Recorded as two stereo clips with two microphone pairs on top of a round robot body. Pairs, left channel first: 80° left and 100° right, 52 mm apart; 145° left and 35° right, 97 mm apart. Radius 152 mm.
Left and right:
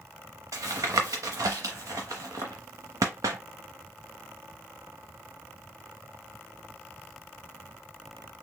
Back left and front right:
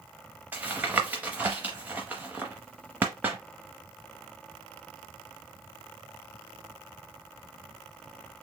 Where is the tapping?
110° right, 0.5 m.